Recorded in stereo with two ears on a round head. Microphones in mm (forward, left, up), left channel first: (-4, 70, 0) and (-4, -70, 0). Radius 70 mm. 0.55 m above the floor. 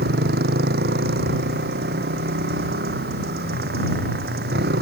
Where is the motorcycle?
70° right (ahead or behind).